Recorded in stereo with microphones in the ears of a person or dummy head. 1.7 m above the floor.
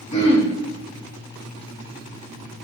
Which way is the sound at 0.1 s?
25° left (ahead or behind).